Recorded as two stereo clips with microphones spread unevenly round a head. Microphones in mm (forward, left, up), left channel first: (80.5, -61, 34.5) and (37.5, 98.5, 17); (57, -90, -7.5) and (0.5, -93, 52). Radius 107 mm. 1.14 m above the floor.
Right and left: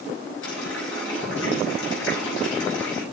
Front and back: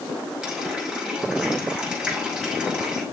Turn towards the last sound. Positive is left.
turn(degrees=-100)